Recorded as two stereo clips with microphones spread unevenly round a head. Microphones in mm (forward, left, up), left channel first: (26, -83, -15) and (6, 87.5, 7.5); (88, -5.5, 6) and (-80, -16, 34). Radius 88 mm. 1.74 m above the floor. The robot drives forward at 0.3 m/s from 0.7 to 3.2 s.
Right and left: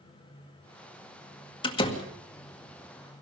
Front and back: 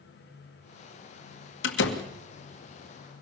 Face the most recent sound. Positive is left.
turn(degrees=-25)